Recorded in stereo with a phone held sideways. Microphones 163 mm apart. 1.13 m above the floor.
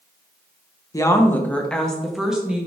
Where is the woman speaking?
20° left (ahead or behind), 1.1 m; by 2.7 s 10° right (ahead or behind), 1.7 m.